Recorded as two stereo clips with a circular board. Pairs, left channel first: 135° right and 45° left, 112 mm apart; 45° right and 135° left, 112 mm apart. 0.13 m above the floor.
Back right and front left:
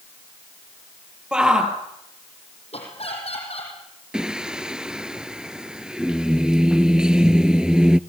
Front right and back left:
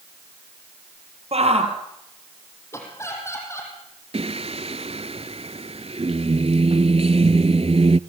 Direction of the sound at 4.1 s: 125° left.